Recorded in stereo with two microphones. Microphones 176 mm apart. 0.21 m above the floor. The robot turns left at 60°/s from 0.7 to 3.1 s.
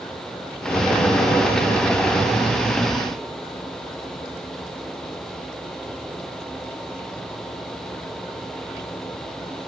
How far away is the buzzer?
I don't hear a buzzer.